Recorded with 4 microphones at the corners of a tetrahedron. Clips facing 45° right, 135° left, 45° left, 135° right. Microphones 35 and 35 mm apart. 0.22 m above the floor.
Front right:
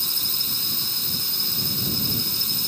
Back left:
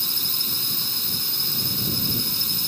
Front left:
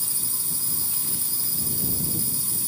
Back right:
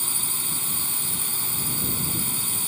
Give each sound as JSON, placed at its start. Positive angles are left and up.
{"t": 0.0, "sound": "a drone", "azimuth_deg": -140}